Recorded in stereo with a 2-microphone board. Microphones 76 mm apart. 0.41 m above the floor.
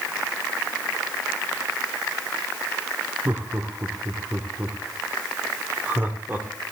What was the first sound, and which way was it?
Laughter, 25° right (ahead or behind).